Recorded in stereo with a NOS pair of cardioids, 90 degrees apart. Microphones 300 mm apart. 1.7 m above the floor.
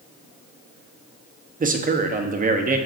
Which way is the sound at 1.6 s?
30° right.